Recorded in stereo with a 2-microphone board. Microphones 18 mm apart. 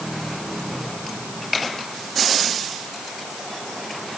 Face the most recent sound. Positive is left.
No sound to turn to.